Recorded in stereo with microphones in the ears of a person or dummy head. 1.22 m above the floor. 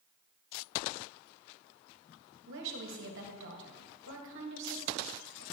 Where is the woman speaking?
70° right (ahead or behind), 1.6 m.